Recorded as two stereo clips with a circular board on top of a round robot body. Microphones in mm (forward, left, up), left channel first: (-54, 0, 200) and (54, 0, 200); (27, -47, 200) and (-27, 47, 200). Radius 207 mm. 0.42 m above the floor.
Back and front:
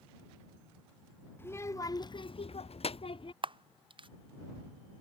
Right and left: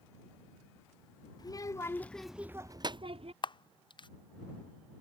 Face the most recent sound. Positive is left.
turn(degrees=-25)